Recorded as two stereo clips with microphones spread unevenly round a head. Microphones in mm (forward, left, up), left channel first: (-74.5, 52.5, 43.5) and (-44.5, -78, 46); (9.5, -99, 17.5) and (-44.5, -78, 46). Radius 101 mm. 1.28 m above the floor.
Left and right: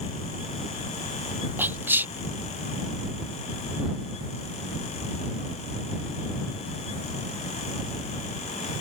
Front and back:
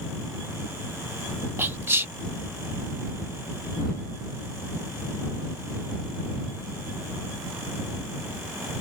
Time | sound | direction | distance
1.6 | whispering | 155° right | ?